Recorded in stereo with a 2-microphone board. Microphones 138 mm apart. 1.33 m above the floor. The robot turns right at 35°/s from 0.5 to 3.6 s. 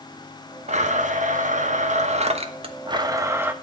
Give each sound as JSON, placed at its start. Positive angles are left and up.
{"t": 0.7, "sound": "a blender", "azimuth_deg": -115, "distance_m": 1.0}